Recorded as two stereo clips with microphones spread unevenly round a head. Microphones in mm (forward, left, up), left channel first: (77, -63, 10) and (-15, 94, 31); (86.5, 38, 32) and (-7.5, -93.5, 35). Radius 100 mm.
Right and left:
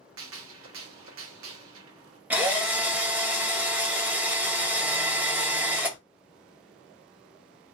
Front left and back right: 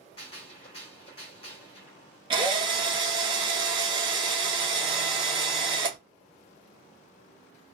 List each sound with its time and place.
0.2 s a gunshot: 115° left, 0.9 m
2.3 s a drill: 170° right, 0.5 m